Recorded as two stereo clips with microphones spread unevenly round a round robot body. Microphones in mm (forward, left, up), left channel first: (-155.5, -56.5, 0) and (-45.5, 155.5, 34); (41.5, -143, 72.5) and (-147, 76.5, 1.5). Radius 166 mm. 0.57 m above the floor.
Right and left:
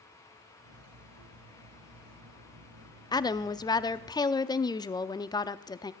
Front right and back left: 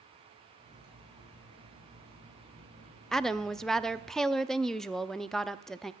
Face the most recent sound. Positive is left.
turn(degrees=-160)